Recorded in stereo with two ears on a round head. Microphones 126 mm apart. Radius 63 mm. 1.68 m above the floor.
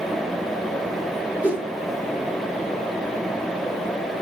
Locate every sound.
1.4 s a whoosh: 10° right (ahead or behind), 3 m